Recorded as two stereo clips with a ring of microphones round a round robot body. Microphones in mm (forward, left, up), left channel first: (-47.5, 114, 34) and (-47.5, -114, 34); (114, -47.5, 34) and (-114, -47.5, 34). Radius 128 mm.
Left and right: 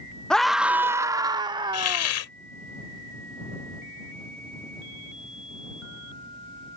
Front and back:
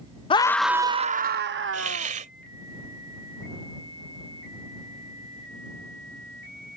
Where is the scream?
10° left; by 2.1 s 160° right.